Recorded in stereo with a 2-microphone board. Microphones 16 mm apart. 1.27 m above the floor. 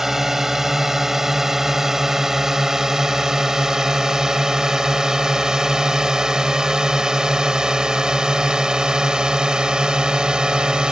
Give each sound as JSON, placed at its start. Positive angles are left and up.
{"t": 0.0, "sound": "a drone", "side_deg": -30}